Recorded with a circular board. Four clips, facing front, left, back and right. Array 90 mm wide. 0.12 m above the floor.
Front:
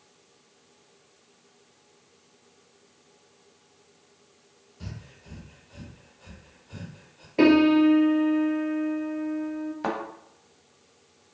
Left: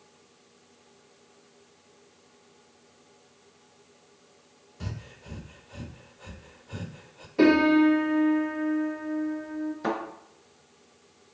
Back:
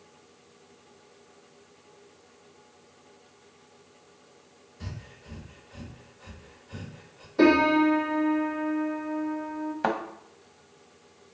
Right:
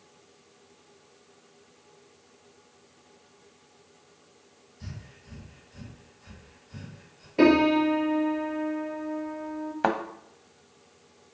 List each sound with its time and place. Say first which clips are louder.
4.8 s breathing: left 5 dB, even; 95° left, 0.5 m
7.4 s a piano: left 1 dB, front 2 dB; 25° right, 1.5 m
9.8 s a thud: right 5 dB, back 3 dB; 105° right, 1.1 m